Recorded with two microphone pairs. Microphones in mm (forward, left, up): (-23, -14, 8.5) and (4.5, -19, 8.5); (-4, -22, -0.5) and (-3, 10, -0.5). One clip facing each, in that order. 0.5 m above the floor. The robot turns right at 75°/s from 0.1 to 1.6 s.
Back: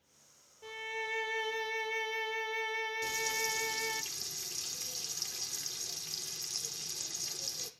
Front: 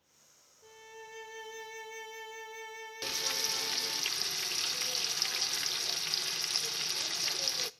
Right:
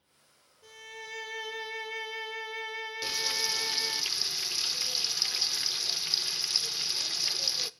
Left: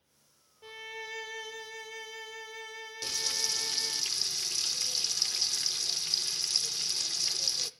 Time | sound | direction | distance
0.6 | a violin | 140° left | 1.1 m
3.0 | frying | 30° right | 0.7 m